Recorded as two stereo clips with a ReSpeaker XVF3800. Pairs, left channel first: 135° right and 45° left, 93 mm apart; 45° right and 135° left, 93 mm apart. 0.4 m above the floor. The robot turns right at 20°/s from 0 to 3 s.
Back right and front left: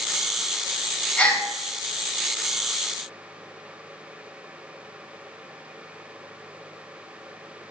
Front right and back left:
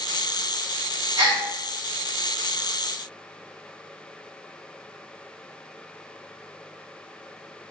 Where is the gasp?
150° left, 1.8 m; by 1.4 s 155° left, 1.8 m.